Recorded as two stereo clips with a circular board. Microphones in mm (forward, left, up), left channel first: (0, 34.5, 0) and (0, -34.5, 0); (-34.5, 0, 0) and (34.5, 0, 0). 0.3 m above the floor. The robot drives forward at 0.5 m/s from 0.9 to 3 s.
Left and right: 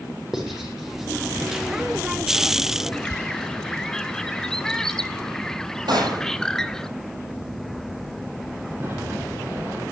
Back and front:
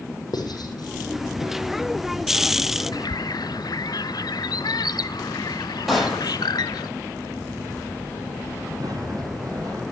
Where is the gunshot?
85° right, 9.5 m.